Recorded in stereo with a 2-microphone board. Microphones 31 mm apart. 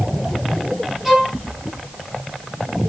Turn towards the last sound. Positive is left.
turn(degrees=-10)  # may be behind; listen again after turning